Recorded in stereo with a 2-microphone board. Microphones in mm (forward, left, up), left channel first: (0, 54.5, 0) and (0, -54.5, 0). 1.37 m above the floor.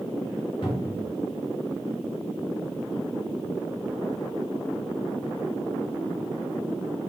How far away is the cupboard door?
About 1.4 m.